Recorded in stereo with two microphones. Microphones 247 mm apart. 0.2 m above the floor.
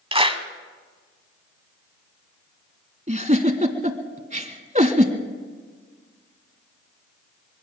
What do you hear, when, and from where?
0.1 s a clap: 20° right (ahead or behind), 1.4 m
3.1 s a giggle: 30° right (ahead or behind), 1.3 m